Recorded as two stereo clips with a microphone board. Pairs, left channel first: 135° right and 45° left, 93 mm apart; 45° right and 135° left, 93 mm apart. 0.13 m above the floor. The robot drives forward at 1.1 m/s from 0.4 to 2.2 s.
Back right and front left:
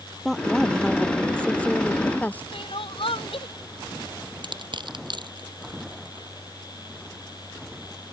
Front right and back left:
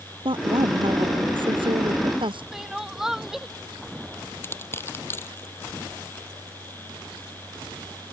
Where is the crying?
140° right.